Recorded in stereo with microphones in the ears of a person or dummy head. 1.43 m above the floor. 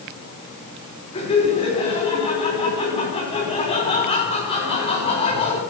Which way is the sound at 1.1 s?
30° left (ahead or behind).